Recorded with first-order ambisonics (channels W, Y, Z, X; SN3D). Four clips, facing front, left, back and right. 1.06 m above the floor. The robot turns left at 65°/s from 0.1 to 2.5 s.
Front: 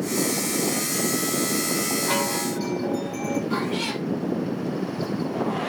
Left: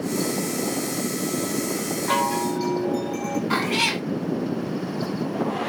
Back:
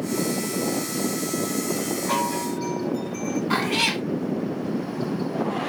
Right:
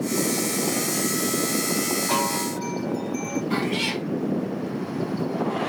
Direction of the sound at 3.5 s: 135° left.